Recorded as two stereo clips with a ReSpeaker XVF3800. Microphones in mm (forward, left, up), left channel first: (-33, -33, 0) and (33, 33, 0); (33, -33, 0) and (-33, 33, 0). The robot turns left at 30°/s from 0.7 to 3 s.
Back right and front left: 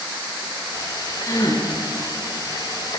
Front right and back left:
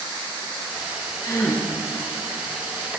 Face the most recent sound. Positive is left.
turn(degrees=-140)